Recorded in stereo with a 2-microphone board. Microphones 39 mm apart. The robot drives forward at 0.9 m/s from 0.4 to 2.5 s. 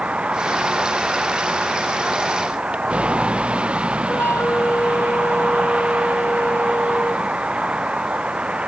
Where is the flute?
60° left (ahead or behind).